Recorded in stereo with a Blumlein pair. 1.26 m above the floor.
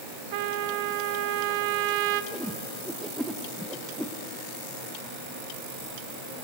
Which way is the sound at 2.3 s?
Straight ahead.